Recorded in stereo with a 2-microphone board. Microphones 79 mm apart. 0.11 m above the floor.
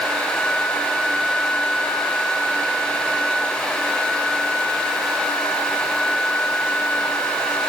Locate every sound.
Only background noise.